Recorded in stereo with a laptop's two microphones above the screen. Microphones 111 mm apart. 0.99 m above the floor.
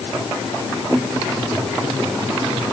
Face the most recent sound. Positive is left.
No sound to turn to.